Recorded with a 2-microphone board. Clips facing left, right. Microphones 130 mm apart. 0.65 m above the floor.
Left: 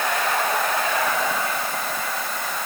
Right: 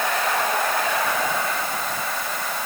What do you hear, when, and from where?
Only background noise.